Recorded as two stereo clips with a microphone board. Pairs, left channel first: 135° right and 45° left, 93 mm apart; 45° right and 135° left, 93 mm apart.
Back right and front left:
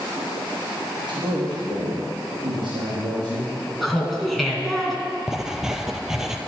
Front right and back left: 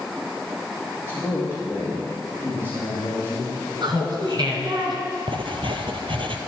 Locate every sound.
1.0 s a man speaking: 75° left, 3 m
3.8 s laughter: 135° left, 2.5 m
5.3 s writing: 130° left, 0.9 m